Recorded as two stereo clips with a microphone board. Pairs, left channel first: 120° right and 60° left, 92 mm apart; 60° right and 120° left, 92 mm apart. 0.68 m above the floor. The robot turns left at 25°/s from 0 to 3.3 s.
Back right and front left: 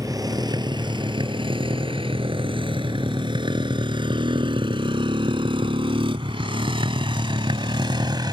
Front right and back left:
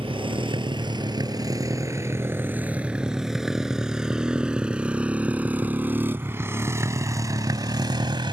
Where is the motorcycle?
110° left; by 8.3 s 95° left.